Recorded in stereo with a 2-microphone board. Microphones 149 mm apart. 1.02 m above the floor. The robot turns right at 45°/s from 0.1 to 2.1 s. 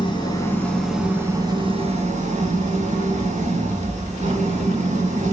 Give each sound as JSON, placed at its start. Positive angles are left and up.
{"t": 0.0, "sound": "an engine running", "azimuth_deg": 145, "distance_m": 3.0}